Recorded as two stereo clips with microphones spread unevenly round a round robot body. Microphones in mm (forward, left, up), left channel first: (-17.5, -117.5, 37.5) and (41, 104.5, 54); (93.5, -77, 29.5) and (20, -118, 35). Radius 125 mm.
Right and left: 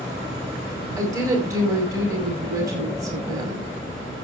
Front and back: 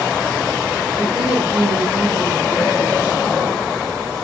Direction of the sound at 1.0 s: 150° left.